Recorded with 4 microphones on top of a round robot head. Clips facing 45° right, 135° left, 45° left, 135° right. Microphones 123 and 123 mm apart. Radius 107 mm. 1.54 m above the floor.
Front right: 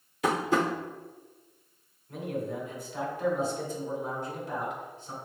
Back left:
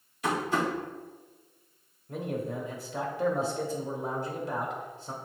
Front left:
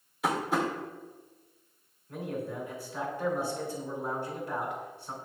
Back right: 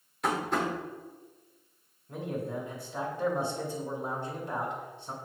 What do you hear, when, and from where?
0.2 s tapping: 40° right, 0.9 m
2.1 s a man speaking: 160° left, 1.6 m